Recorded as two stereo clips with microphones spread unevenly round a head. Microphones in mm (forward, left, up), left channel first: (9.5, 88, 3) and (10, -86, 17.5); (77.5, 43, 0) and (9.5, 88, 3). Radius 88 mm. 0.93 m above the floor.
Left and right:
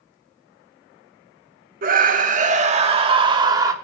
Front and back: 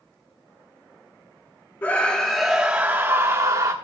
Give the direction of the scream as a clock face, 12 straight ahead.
3 o'clock.